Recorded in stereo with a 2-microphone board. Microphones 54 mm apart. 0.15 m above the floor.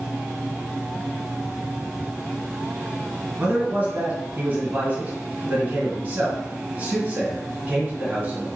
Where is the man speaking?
35° right (ahead or behind), 2 m.